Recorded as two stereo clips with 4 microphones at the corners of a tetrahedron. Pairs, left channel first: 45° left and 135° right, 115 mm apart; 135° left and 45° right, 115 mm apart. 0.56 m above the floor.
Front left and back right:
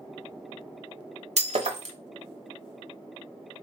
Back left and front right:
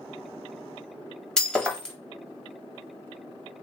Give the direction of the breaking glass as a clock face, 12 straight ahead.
5 o'clock.